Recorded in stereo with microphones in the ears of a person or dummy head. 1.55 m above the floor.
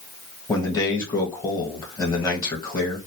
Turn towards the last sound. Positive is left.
turn(degrees=20)  # may be behind; listen again after turning